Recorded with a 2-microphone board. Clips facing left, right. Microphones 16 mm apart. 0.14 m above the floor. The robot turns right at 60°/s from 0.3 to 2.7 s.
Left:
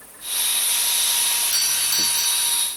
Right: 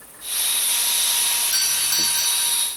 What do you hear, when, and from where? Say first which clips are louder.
1.5 s a doorbell: even; 105° right; by 2.6 s 45° right